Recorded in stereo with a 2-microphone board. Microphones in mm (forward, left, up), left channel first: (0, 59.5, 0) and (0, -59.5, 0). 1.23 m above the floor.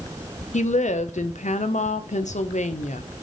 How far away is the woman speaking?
About 0.6 m.